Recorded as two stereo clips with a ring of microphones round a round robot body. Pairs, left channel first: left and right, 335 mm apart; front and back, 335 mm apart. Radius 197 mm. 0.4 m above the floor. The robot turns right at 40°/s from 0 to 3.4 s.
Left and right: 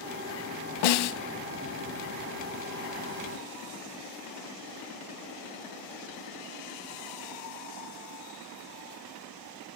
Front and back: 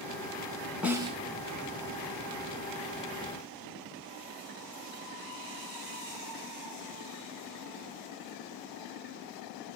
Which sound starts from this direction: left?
A snare drum, at 0.8 s.